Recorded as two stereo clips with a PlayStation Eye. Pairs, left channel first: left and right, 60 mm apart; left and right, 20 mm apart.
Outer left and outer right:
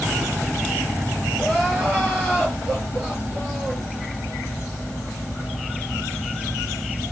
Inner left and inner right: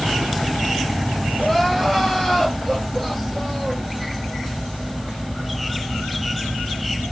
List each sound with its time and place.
1.4 s crying: 30° left (ahead or behind), 4 m